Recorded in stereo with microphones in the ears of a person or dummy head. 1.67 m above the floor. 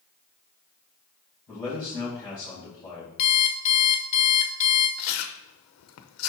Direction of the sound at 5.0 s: 75° left (ahead or behind).